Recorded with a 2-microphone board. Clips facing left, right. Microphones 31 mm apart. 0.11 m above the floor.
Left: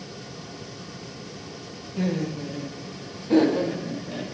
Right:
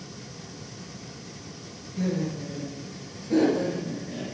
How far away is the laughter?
About 2.5 m.